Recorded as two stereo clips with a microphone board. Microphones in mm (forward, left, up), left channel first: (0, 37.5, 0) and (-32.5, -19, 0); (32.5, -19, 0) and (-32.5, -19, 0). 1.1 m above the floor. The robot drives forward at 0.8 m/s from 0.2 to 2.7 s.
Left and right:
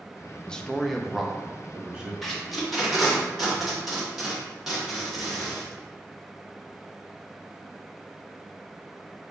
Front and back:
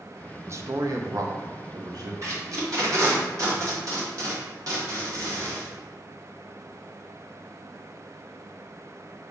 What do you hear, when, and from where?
0.5 s a man speaking: 135° left, 0.8 m; by 2.1 s 165° left, 2.0 m
2.2 s tape being pulled: 145° left, 1.7 m; by 5.7 s 155° left, 2 m